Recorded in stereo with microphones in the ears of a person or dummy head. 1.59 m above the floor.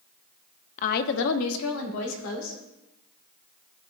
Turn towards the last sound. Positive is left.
turn(degrees=75)  # may be behind; listen again after turning